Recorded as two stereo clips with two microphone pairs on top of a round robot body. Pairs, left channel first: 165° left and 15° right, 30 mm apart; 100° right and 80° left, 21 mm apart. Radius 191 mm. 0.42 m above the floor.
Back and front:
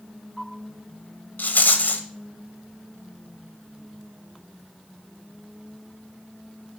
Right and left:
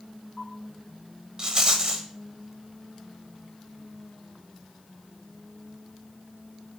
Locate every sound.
1.4 s a rattle: 135° left, 0.7 m